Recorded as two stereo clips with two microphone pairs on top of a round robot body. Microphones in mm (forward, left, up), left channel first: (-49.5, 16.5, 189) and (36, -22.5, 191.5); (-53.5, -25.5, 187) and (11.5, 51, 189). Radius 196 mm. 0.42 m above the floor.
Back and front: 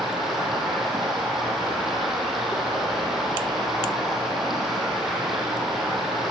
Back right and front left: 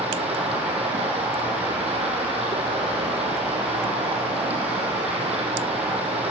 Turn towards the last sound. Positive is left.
turn(degrees=65)